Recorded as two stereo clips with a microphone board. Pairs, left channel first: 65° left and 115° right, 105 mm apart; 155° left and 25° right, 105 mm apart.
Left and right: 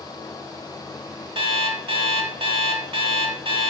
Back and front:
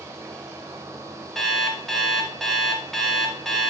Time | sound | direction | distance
1.4 | an alarm clock | 115° right | 0.7 m